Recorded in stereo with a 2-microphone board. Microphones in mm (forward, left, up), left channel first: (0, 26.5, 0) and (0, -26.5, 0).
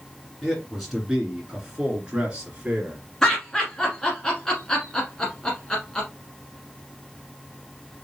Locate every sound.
0.4 s a man speaking: 10° left (ahead or behind), 2 m; by 3.0 s 20° right (ahead or behind), 2.5 m
3.2 s laughter: 15° left (ahead or behind), 1.4 m